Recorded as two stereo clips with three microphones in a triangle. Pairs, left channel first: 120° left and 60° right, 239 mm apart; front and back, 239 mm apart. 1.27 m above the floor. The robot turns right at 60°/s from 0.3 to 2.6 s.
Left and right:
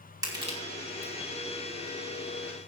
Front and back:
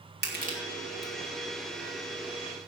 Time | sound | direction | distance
0.2 | crushing | 135° right | 3 m